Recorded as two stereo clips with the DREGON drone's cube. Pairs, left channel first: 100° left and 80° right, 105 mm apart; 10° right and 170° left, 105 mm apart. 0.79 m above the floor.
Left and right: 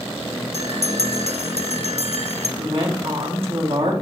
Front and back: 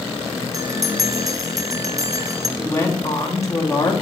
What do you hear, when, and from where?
0.5 s a bell: 115° left, 0.5 m
2.6 s a woman speaking: 70° right, 1.7 m